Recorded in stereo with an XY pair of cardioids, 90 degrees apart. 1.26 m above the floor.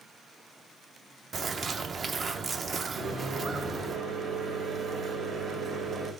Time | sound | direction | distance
1.3 | a bird | 50° right | 0.6 m
3.0 | a microwave | 70° right | 1.6 m